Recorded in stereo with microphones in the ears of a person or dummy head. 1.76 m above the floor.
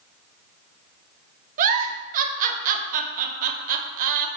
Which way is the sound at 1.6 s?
45° right (ahead or behind).